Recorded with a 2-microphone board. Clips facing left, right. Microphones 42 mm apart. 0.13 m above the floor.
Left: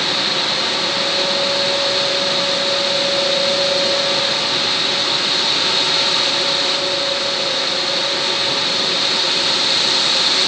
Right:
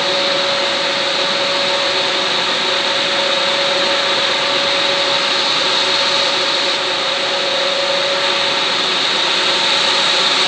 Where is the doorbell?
I don't hear a doorbell.